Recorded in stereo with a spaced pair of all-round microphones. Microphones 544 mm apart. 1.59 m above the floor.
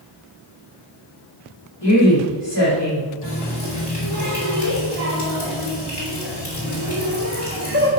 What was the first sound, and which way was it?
A woman speaking, 50° left (ahead or behind).